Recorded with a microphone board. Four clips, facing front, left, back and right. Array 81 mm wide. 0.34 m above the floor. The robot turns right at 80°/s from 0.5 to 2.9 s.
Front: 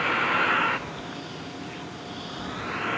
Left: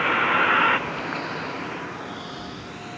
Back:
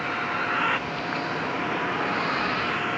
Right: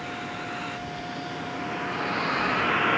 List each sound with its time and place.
0.0 s a vehicle: 80° left; by 3.0 s 90° right